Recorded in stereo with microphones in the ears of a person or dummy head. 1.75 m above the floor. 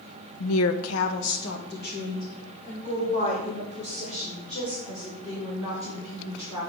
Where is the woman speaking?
70° left (ahead or behind), 0.7 m; by 6.6 s 30° left (ahead or behind), 5 m.